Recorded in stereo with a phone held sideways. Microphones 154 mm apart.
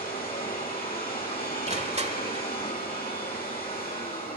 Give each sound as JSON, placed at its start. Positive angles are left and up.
{"t": 0.0, "sound": "a machine running", "side_deg": 75, "distance_m": 7.5}
{"t": 1.7, "sound": "crushing", "side_deg": -45, "distance_m": 1.5}